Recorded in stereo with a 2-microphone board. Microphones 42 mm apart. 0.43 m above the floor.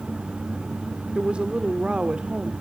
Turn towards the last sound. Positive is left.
turn(degrees=-25)  # may be behind; listen again after turning